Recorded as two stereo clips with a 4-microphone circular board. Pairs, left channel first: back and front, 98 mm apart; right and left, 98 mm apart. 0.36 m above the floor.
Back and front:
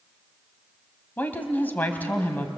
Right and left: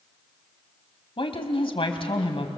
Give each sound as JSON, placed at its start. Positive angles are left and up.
{"t": 1.2, "sound": "a woman speaking", "azimuth_deg": -110, "distance_m": 2.0}